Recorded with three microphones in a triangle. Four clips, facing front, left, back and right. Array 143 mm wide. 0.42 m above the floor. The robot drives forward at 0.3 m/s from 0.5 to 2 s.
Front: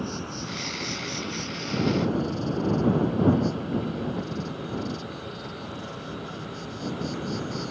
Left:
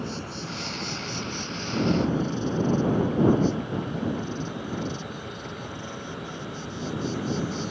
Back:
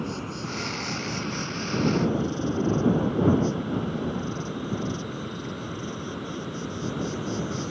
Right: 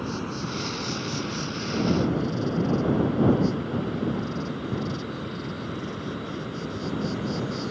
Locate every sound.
0.0 s an insect: 110° right; by 7.7 s 125° right